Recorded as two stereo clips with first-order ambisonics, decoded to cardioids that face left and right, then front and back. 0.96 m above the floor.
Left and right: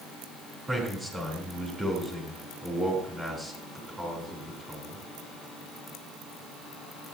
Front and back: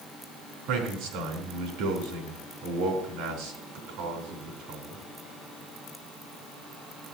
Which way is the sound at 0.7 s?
165° right.